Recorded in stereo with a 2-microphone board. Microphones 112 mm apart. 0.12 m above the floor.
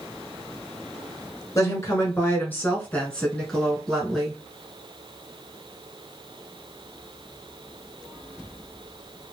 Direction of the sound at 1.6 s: 30° left (ahead or behind).